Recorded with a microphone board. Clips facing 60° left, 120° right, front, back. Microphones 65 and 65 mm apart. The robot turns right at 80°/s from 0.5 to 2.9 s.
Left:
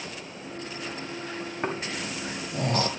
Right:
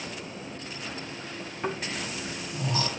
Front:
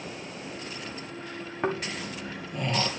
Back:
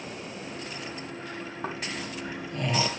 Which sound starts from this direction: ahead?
Snoring, at 1.6 s.